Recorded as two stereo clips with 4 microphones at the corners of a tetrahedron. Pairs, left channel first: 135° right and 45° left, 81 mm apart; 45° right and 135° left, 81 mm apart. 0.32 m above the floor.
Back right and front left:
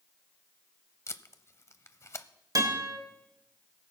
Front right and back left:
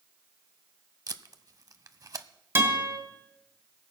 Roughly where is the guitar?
Left.